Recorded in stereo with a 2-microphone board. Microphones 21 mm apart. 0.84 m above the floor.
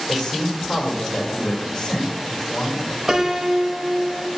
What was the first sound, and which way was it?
A man speaking, 25° left (ahead or behind).